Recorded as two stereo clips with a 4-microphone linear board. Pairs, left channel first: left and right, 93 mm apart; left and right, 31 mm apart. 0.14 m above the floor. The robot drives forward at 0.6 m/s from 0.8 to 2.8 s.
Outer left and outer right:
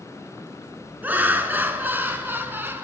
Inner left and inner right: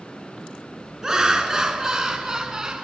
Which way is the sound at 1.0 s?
20° right (ahead or behind).